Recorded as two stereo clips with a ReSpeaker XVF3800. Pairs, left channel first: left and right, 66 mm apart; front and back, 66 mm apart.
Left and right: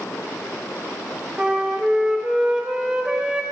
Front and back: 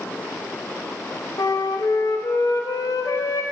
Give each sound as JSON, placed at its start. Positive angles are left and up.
{"t": 1.4, "sound": "a flute", "azimuth_deg": -15, "distance_m": 0.7}